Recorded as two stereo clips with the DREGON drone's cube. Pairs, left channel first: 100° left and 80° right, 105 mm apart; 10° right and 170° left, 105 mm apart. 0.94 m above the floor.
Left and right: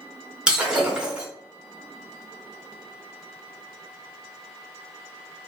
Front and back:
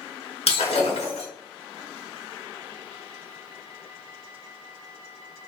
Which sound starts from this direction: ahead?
Breaking glass, at 0.5 s.